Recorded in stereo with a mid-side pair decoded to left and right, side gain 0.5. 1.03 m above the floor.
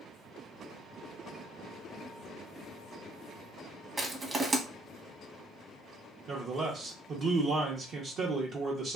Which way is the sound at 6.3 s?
55° right.